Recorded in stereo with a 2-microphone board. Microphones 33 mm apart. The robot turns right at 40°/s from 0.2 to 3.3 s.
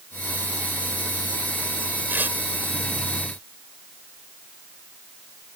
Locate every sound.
2.1 s tearing paper: 70° right (ahead or behind); by 2.4 s 80° right